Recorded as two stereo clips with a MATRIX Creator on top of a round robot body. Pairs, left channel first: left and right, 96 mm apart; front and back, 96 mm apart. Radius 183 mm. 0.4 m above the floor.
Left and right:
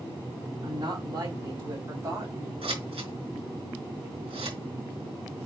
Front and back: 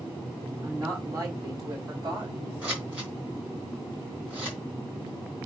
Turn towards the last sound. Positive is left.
turn(degrees=-105)